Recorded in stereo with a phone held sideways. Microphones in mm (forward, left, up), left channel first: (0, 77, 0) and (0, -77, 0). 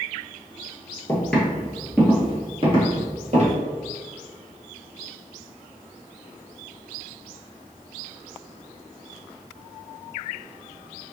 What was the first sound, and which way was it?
Footsteps, 15° left (ahead or behind).